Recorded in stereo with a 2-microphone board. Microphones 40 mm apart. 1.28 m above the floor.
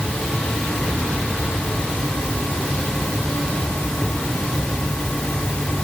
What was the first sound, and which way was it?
Only background noise.